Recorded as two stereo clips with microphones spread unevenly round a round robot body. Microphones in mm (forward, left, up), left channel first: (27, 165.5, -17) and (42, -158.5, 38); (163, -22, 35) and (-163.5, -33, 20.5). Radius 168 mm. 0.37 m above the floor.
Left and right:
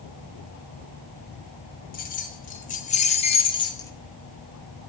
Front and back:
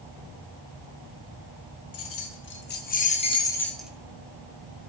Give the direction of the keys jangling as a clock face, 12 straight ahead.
11 o'clock.